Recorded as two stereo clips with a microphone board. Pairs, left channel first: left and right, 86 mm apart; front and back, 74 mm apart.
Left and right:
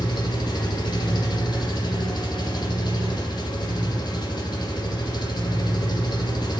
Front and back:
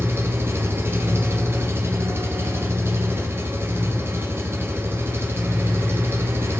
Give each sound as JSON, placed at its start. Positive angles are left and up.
{"t": 0.0, "sound": "an engine running", "azimuth_deg": 125, "distance_m": 1.0}